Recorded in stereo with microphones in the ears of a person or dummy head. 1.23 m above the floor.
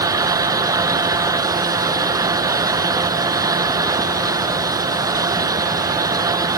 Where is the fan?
15° right (ahead or behind).